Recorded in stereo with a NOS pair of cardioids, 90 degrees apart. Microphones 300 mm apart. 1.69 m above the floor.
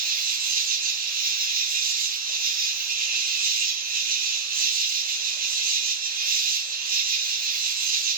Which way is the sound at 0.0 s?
30° right.